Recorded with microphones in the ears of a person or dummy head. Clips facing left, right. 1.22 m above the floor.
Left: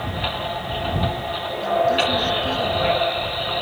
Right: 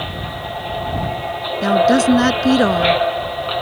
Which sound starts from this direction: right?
A woman speaking, at 1.6 s.